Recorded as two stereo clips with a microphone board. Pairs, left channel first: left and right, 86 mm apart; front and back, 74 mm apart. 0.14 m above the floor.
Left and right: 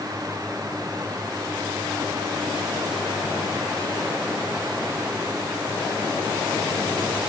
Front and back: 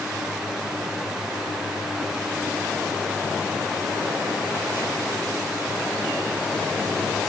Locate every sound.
Only background noise.